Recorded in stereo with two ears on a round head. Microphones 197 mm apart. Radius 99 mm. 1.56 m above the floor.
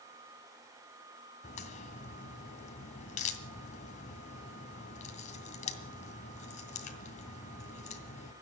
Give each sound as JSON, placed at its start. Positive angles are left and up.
{"t": 1.4, "sound": "a crack", "side_deg": 35, "distance_m": 2.0}